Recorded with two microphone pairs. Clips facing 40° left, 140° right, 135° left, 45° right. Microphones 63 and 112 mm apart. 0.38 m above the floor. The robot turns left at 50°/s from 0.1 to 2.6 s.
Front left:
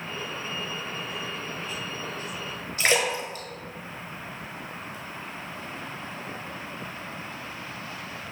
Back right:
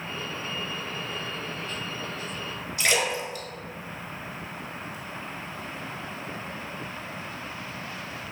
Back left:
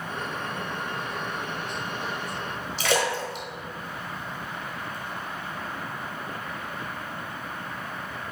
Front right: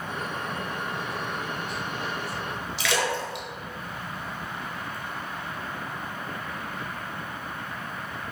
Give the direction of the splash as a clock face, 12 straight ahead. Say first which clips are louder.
Front left 2 dB, back left 2 dB; 9 o'clock.